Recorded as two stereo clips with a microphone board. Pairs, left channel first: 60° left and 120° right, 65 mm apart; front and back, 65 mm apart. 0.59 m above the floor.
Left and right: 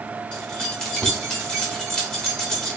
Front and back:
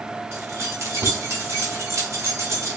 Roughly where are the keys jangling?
Behind left.